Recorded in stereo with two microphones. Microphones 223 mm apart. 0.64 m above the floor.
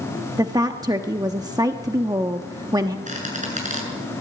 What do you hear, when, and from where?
0.4 s a woman speaking: 15° right (ahead or behind), 0.9 m
3.1 s a squeak: 35° right (ahead or behind), 6.5 m